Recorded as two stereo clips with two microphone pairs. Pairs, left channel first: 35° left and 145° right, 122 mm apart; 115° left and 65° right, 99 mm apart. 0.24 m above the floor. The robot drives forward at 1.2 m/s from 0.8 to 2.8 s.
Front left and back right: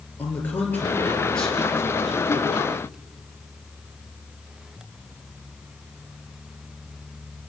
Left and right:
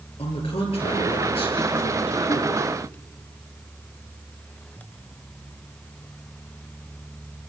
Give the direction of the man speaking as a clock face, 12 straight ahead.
8 o'clock.